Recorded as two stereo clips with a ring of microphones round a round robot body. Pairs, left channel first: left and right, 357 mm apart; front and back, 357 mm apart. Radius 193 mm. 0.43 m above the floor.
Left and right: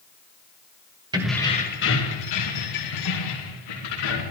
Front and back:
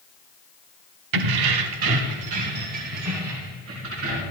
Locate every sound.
1.1 s keys jangling: 170° right, 1.2 m; by 4.2 s 120° left, 5 m